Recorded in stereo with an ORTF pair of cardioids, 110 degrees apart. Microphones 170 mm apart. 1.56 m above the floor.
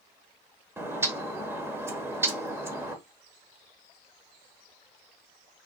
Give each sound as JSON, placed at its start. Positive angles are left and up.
{"t": 0.8, "sound": "a bird", "azimuth_deg": -15, "distance_m": 1.1}